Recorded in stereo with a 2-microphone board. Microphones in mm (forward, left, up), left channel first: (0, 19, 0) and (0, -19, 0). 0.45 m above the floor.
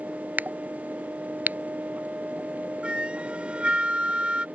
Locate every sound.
0.4 s a crack: 45° right (ahead or behind)
2.8 s a flute: 30° right (ahead or behind)